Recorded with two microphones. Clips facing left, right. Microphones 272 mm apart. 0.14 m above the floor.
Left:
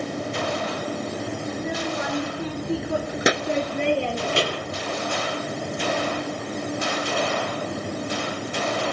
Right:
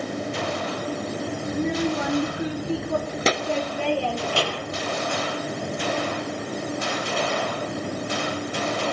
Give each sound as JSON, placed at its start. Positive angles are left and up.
{"t": 1.5, "sound": "a child speaking", "side_deg": -30, "distance_m": 1.2}